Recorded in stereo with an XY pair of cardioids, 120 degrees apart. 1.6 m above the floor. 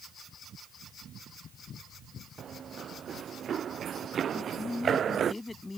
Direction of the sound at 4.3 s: 15° left.